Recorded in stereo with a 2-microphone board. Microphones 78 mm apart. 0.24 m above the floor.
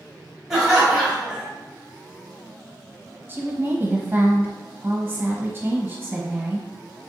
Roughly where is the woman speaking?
Right.